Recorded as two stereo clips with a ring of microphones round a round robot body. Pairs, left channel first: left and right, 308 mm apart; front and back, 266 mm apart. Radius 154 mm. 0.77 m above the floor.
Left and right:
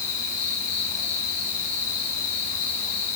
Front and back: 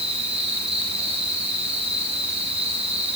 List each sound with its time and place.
0.0 s an insect: 115° left, 9 m